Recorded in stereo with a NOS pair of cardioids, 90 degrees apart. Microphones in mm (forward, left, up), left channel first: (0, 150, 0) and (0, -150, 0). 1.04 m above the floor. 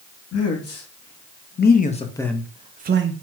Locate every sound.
0.3 s a man speaking: 55° left, 1.3 m; by 3.1 s 45° right, 0.6 m